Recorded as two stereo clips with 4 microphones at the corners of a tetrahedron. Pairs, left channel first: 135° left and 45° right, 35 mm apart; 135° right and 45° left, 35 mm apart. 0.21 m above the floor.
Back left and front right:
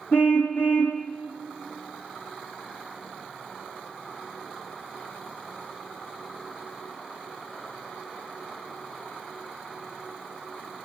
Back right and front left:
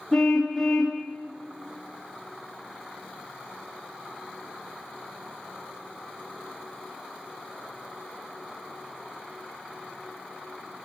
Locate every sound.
0.1 s a car horn: 140° left, 4 m